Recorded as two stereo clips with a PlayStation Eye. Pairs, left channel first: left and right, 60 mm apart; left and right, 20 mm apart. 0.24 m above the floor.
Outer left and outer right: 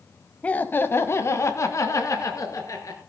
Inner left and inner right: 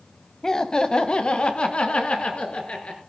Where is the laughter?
25° left (ahead or behind), 1.1 m; by 3.0 s 65° left (ahead or behind), 3.5 m.